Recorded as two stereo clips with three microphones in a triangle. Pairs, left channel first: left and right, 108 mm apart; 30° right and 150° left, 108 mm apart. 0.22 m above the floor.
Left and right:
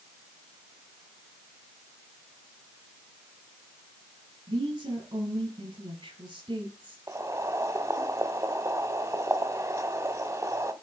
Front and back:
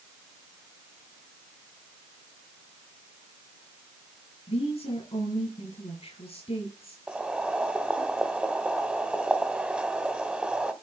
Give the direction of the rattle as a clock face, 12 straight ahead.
I don't hear a rattle.